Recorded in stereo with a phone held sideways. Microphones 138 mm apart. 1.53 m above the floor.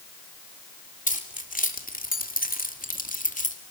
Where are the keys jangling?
70° left (ahead or behind), 3.5 m; by 3.6 s 60° left (ahead or behind), 2.5 m.